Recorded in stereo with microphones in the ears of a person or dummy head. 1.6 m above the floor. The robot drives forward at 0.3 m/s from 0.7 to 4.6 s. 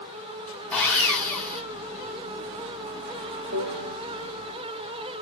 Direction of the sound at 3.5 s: 70° right (ahead or behind).